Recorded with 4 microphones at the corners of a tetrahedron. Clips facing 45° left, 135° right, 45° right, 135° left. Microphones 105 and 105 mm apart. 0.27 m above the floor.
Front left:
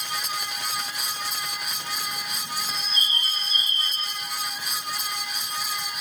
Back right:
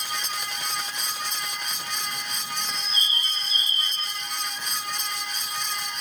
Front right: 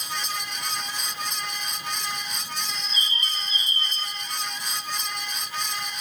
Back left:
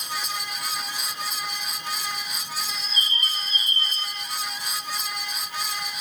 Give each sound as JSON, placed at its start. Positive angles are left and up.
{"t": 2.7, "sound": "a bird", "azimuth_deg": 95, "distance_m": 3.0}